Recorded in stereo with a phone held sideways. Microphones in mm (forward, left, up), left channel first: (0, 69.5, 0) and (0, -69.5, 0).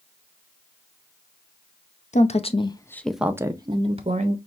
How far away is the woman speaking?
About 0.7 m.